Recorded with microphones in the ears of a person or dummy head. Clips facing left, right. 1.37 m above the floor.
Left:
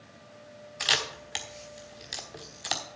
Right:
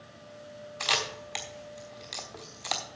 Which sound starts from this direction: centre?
A camera shutter, at 0.8 s.